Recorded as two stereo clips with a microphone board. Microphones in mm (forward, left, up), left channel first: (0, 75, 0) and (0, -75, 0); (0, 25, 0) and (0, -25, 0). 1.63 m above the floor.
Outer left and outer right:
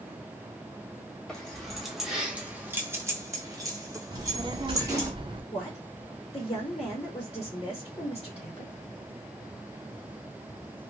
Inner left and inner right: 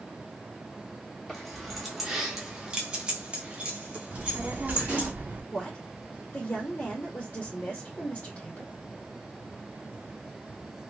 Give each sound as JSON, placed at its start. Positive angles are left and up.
{"t": 1.3, "sound": "keys jangling", "side_deg": 5, "distance_m": 1.1}
{"t": 4.1, "sound": "a child speaking", "side_deg": -35, "distance_m": 0.7}
{"t": 5.5, "sound": "a woman speaking", "side_deg": 30, "distance_m": 1.4}